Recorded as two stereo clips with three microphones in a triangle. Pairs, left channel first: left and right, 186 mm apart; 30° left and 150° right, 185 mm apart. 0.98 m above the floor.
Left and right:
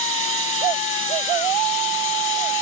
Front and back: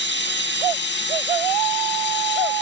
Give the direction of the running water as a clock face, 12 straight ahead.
11 o'clock.